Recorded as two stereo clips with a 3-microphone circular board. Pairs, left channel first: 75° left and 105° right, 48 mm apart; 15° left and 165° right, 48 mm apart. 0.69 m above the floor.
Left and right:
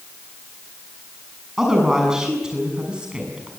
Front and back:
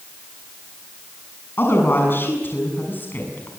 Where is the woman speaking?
25° right, 6.5 m; by 3.5 s 35° right, 6.5 m.